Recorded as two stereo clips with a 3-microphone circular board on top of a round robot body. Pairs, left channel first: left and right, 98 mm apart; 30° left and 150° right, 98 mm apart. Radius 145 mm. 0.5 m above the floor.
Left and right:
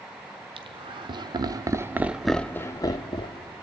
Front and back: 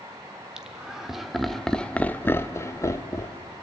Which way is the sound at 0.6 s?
65° right.